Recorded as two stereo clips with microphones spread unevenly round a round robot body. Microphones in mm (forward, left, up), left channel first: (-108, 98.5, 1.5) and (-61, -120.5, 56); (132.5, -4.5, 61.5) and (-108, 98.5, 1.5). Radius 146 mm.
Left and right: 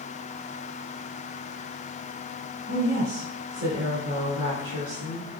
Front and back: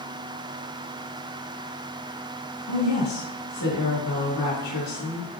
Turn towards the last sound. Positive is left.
turn(degrees=-25)